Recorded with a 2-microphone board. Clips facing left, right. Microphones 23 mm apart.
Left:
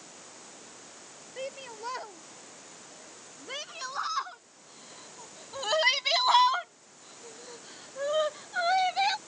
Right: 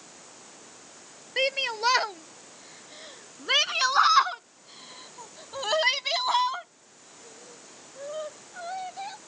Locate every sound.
1.4 s a shout: 80° right; by 9.2 s 55° left (ahead or behind)